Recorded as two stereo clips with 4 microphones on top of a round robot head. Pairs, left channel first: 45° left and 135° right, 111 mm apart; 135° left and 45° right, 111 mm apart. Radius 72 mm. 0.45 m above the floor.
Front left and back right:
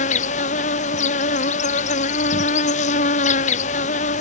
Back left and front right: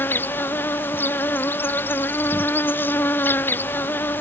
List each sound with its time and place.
0.0 s an insect: 60° left